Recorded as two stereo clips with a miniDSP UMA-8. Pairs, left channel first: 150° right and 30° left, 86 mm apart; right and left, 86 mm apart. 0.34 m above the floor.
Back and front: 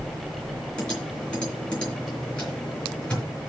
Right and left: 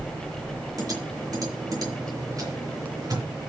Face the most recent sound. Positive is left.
turn(degrees=130)